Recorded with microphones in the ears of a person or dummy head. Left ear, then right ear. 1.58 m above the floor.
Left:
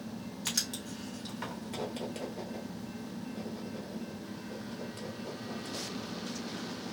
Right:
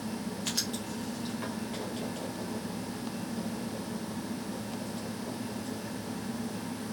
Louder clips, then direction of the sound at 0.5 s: Even; 15° left (ahead or behind).